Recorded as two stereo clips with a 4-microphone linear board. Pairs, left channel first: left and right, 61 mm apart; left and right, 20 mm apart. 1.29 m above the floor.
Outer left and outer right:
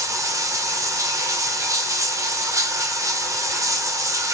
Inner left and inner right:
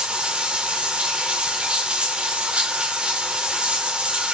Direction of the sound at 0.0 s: 60° right (ahead or behind).